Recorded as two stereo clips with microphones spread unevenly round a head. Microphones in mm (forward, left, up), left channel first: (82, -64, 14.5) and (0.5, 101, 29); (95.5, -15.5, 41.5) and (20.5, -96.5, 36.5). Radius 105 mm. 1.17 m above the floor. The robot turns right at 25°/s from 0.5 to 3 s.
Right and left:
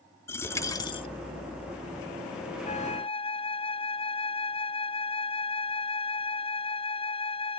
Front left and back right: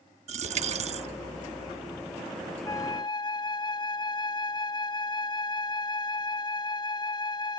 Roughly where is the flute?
Ahead.